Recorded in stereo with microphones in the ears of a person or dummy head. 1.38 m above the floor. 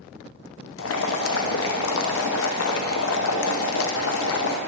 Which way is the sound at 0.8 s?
80° left.